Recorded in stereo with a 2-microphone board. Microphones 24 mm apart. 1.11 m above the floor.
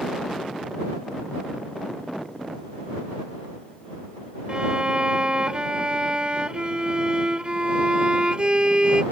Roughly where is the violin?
Right.